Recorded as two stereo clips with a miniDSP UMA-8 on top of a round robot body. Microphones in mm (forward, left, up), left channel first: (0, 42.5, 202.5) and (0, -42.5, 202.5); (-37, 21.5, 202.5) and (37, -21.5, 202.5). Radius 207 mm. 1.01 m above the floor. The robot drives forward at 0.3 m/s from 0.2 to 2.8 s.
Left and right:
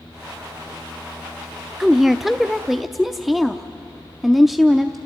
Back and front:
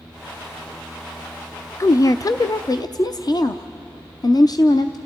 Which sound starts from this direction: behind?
A woman speaking, at 1.8 s.